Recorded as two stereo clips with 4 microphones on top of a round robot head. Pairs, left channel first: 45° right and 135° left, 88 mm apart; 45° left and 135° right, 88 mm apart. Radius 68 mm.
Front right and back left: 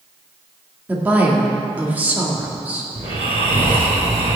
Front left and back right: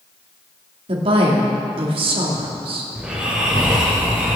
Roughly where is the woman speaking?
Behind right.